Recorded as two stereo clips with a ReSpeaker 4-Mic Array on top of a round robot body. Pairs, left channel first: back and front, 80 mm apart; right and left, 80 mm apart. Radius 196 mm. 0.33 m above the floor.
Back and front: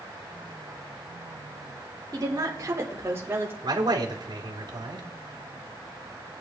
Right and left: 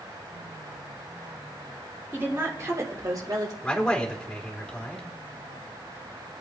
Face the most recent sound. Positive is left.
turn(degrees=-10)